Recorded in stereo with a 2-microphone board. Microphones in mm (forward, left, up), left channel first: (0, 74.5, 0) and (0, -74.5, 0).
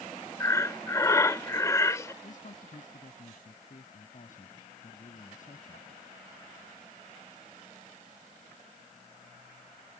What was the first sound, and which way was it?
Breathing, 20° left (ahead or behind).